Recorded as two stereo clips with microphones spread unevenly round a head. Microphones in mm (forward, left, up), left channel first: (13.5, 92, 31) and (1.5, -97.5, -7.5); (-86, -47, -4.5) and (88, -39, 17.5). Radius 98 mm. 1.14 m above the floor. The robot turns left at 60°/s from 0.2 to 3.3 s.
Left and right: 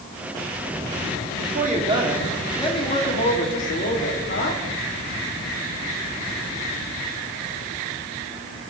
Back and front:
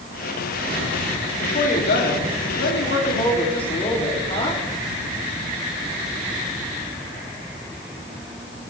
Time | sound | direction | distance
1.4 | a woman speaking | 125° right | 3 m